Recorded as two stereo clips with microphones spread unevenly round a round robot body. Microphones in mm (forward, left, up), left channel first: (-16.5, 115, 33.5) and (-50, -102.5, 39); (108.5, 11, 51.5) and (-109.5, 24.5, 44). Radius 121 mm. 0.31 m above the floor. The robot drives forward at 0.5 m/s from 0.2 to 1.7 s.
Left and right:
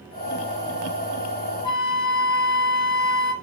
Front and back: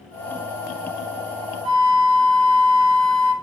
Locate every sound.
1.6 s a flute: 150° left, 2.5 m